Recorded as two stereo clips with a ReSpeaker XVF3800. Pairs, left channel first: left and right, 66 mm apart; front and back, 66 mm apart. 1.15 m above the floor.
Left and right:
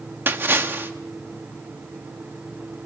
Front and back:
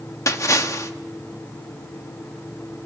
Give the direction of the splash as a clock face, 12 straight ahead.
1 o'clock.